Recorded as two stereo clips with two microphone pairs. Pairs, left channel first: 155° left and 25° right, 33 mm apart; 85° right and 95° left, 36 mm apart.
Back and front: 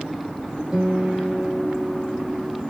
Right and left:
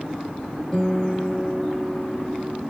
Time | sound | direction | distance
0.7 | a guitar | 30° right | 1.0 m